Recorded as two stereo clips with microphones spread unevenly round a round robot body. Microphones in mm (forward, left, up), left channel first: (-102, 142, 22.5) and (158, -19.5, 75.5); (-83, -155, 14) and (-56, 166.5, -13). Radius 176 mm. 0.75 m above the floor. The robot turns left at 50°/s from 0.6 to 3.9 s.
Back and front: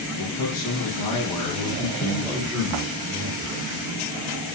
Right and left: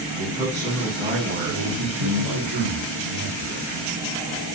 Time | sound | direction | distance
0.2 | a man speaking | straight behind | 8.5 m
1.5 | a man speaking | 120° left | 8.5 m